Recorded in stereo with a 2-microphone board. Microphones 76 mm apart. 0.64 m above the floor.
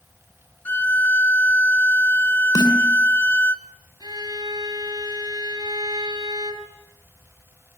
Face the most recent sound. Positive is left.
turn(degrees=-70)  # may be behind; listen again after turning